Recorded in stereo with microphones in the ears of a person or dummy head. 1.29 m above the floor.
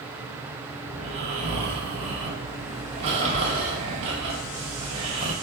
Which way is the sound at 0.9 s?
30° right (ahead or behind).